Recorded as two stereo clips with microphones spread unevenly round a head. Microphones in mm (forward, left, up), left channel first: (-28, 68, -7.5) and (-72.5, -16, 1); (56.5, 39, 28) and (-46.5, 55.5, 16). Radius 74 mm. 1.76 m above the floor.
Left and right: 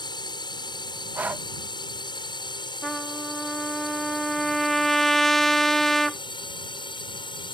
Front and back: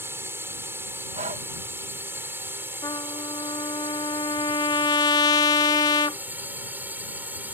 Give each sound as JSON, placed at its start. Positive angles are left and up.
{"t": 0.0, "sound": "a drone", "azimuth_deg": 105}
{"t": 1.1, "sound": "breathing", "azimuth_deg": 175}
{"t": 2.8, "sound": "a trumpet", "azimuth_deg": -30}